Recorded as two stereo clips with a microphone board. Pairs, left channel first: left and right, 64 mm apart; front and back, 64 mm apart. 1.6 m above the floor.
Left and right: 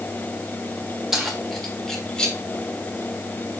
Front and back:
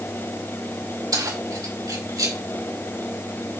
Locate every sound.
1.1 s keys jangling: 175° right, 2.5 m; by 2.4 s 165° left, 2.5 m